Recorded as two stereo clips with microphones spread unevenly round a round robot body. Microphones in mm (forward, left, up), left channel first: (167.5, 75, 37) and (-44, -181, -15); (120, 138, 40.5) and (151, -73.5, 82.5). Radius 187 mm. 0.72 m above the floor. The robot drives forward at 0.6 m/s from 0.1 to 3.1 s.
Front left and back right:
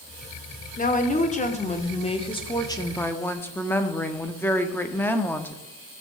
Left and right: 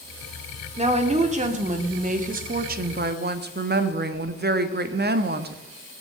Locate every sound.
0.8 s a woman speaking: 20° right, 2.5 m; by 5.6 s 40° right, 1.5 m